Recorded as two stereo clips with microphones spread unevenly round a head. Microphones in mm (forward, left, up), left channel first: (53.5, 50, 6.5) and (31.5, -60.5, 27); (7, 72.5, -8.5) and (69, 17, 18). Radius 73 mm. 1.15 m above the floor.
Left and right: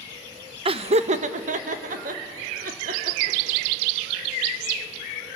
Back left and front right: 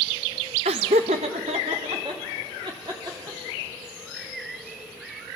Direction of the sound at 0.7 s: 60° right.